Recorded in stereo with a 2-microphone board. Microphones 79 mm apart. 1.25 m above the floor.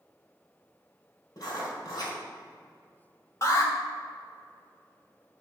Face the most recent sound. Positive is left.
turn(degrees=40)  # may be behind; listen again after turning